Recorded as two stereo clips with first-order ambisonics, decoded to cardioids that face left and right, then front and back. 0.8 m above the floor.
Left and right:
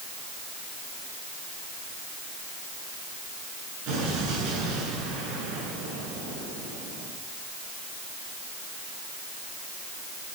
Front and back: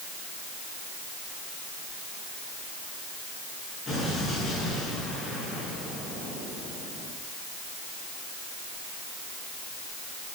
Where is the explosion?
70° right, 7.5 m.